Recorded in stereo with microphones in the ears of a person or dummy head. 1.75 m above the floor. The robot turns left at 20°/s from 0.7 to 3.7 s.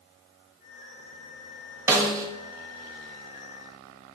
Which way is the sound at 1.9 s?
20° right (ahead or behind).